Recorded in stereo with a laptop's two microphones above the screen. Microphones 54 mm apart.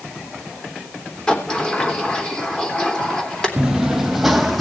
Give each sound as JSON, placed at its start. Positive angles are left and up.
{"t": 1.3, "sound": "a sliding door", "side_deg": 20, "distance_m": 3.5}
{"t": 3.6, "sound": "running footsteps", "side_deg": -15, "distance_m": 1.1}